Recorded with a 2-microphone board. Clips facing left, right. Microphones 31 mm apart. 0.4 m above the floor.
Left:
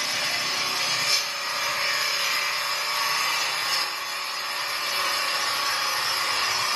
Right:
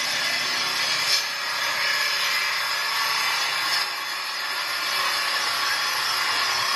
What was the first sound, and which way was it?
An engine running, 10° right (ahead or behind).